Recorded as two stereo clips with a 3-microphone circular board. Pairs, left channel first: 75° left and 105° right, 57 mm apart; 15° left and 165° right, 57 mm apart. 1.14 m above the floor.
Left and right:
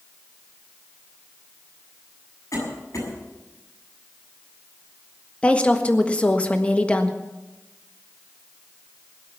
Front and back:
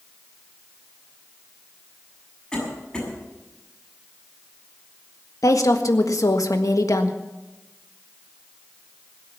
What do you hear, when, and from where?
2.5 s a cough: 95° left, 7.5 m
5.4 s a woman speaking: 5° left, 1.5 m